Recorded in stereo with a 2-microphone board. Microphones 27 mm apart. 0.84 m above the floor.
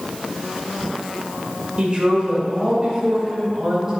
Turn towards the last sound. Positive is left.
turn(degrees=-20)  # may be behind; listen again after turning